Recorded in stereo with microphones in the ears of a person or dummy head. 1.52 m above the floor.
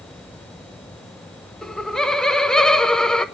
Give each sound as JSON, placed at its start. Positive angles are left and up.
{"t": 1.6, "sound": "laughter", "side_deg": 5, "distance_m": 1.0}